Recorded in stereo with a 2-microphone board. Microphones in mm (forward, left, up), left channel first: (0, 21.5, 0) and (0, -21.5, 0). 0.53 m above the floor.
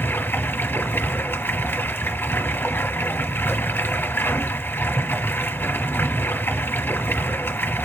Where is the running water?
65° left (ahead or behind), 1.2 m.